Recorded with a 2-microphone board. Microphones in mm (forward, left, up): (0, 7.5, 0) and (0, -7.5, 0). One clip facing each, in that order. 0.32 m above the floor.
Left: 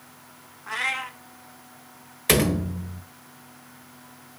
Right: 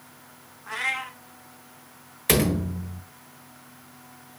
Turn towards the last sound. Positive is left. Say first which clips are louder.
# left 1 dB
turn(degrees=15)  # may be behind; listen again after turning